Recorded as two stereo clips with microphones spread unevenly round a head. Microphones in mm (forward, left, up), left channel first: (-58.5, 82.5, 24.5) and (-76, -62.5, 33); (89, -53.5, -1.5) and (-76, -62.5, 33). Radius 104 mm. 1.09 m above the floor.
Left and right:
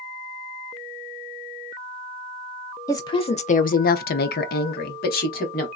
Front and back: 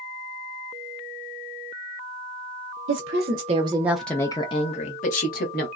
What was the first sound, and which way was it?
A woman speaking, 150° left.